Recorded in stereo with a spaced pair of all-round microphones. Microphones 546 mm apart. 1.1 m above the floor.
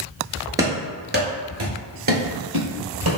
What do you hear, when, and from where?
0.6 s running footsteps: 5° right (ahead or behind), 1.1 m; by 3.2 s 45° right (ahead or behind), 1.7 m